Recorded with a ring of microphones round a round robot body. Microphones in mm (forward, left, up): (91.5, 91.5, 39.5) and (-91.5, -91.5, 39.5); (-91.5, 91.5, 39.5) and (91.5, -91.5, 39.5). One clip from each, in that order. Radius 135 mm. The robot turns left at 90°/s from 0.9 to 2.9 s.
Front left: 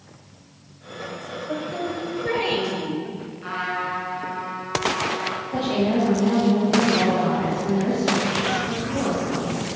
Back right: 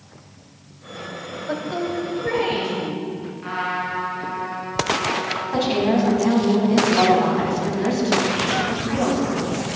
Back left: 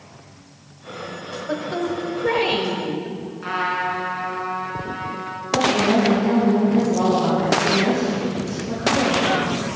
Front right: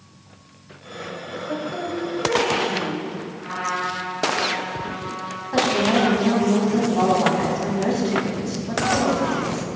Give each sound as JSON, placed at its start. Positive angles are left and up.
{"t": 1.5, "sound": "a woman speaking", "azimuth_deg": -160, "distance_m": 1.9}
{"t": 3.4, "sound": "a trumpet", "azimuth_deg": 130, "distance_m": 3.5}
{"t": 5.5, "sound": "a woman speaking", "azimuth_deg": -100, "distance_m": 4.5}